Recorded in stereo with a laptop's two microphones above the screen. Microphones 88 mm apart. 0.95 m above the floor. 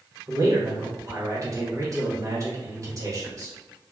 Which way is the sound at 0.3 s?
40° right (ahead or behind).